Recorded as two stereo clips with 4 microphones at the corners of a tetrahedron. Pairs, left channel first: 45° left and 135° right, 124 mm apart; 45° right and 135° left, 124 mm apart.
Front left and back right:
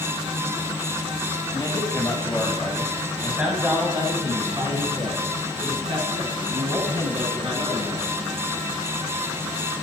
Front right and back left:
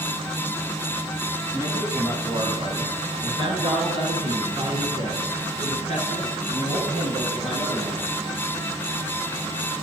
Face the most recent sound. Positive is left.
turn(degrees=180)